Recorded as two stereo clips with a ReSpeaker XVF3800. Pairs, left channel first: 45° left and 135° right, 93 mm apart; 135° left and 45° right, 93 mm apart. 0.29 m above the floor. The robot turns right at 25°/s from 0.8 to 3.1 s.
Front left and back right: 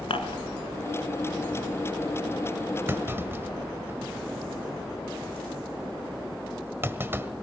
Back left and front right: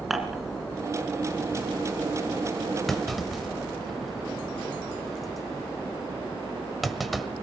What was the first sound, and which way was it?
Dishes clattering, 45° left.